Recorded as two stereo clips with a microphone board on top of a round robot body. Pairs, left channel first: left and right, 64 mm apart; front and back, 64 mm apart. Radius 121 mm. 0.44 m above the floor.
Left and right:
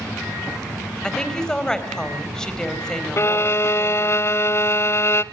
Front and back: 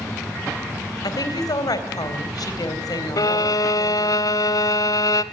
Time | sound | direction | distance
1.0 | a woman speaking | 10° left | 3.5 m
3.2 | a violin | 40° left | 0.7 m